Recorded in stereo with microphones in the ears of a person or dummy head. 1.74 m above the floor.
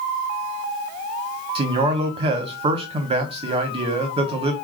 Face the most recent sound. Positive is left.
turn(degrees=-30)  # may be behind; listen again after turning